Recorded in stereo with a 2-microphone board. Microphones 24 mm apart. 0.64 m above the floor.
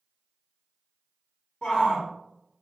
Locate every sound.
1.6 s a shout: 45° left (ahead or behind), 0.9 m